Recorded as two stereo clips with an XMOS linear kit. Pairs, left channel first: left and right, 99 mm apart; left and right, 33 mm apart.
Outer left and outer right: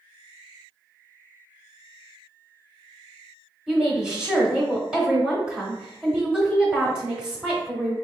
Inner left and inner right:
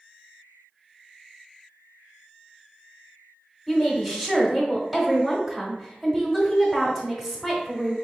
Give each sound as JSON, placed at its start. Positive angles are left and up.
{"t": 3.7, "sound": "a woman speaking", "side_deg": -10, "distance_m": 1.0}